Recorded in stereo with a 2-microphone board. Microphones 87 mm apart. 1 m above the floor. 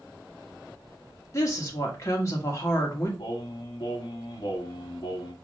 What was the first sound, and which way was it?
A woman speaking, 35° left (ahead or behind).